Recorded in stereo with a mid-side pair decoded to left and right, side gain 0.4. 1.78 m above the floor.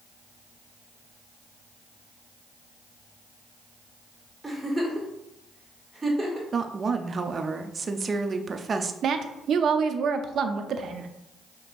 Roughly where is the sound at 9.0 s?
Ahead right.